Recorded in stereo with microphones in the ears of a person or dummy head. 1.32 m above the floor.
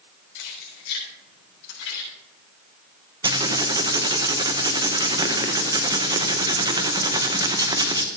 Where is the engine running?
No engine running in this recording.